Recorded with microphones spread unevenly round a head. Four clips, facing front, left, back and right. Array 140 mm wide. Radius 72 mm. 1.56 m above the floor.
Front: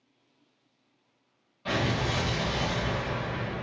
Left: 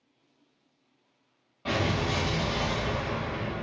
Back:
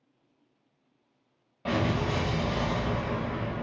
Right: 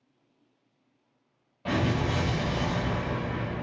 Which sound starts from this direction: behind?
An explosion, at 1.6 s.